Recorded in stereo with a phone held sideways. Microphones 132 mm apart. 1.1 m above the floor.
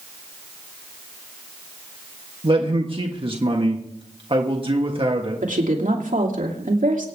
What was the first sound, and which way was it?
A man speaking, 45° right (ahead or behind).